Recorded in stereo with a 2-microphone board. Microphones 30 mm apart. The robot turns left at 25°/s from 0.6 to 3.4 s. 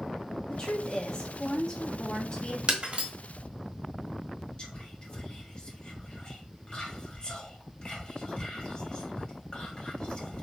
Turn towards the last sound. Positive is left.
turn(degrees=30)  # may be behind; listen again after turning